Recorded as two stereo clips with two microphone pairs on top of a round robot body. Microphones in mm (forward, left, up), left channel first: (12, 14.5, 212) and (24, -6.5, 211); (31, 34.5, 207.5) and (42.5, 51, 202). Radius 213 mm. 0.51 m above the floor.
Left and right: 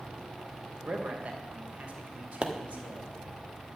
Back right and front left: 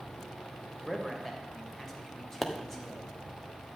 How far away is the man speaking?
About 3 m.